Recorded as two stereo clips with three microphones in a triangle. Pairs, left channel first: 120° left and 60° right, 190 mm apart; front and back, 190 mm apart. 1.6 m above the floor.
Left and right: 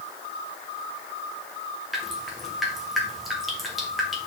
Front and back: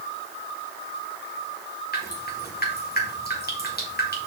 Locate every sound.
1.9 s dripping: 30° left, 1.9 m